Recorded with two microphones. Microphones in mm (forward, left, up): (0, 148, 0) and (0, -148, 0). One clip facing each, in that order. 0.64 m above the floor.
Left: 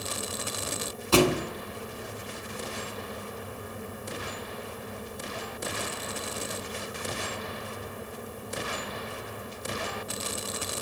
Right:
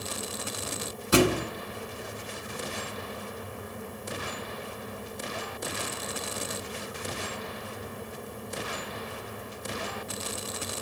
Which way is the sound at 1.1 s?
20° right (ahead or behind).